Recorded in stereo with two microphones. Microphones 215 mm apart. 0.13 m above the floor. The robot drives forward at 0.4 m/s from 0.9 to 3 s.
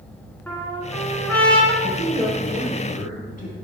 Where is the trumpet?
10° left (ahead or behind), 1.2 m; by 1.7 s 5° left (ahead or behind), 1.4 m.